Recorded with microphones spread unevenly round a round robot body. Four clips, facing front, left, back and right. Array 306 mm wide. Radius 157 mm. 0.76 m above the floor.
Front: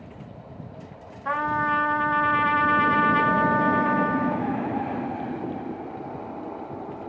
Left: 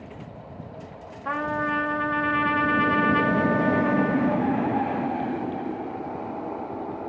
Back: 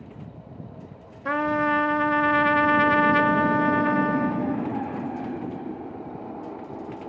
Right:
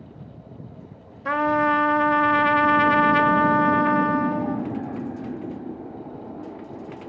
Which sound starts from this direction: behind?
A trumpet, at 1.2 s.